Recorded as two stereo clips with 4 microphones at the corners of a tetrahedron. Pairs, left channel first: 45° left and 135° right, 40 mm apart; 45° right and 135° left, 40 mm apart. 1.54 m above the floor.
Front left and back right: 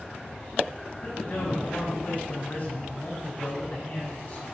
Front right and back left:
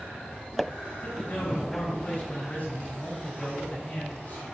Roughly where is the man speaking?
Ahead.